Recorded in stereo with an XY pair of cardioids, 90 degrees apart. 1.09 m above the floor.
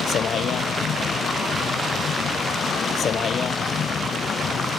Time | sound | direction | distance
0.0 | a vehicle | 60° left | ?